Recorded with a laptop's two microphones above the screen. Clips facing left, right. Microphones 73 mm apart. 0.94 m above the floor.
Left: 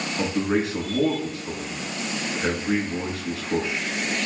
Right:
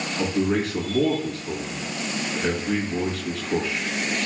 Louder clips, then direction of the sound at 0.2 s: Right 1 dB; 30° left (ahead or behind).